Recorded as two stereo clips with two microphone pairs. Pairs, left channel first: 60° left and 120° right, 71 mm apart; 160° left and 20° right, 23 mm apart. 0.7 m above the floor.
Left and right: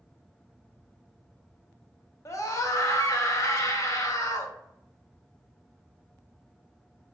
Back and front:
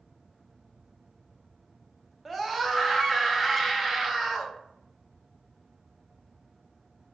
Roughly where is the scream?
Left.